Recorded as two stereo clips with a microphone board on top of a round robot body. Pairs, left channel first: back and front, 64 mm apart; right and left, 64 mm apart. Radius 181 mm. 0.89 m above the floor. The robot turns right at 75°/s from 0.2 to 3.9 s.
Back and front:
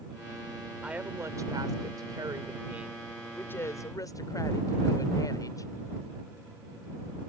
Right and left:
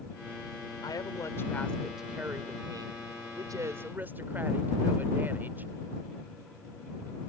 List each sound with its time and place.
0.8 s a woman speaking: 80° right; by 5.7 s 150° left